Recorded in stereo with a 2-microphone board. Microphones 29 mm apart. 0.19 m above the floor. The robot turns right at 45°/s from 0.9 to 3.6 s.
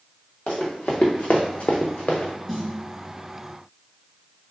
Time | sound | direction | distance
0.5 | running footsteps | 50° left (ahead or behind) | 1.3 m
2.5 | a snare drum | centre (ahead or behind) | 1.6 m